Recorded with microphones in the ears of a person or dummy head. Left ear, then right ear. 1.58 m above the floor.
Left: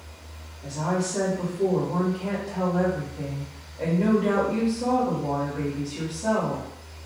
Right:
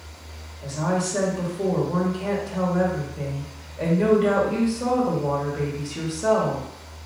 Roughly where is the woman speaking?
Right.